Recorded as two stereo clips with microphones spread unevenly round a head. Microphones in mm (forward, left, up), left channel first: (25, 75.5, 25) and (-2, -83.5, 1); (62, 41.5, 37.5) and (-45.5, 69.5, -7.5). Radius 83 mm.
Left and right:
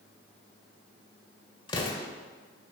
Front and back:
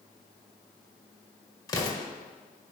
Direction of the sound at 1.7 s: 25° left.